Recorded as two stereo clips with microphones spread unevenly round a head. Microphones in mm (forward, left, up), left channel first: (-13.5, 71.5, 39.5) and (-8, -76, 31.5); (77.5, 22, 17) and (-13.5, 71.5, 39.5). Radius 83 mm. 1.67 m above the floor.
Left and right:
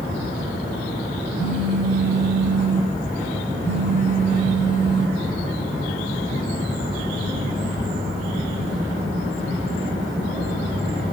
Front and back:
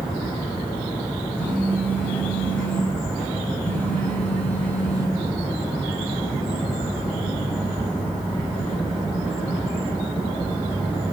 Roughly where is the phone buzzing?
Ahead left.